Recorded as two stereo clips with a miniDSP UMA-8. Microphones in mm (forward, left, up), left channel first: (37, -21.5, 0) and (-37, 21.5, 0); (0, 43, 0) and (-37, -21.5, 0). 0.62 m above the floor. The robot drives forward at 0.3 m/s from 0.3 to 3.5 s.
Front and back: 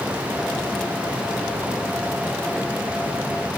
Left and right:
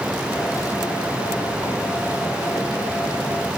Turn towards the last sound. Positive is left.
No sound to turn to.